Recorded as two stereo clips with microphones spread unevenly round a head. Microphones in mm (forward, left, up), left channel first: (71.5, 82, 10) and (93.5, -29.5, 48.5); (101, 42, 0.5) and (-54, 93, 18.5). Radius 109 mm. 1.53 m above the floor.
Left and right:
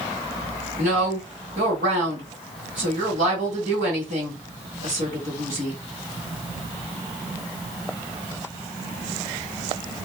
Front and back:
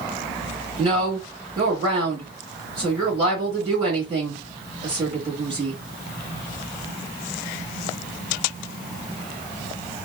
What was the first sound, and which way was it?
A woman speaking, 130° right.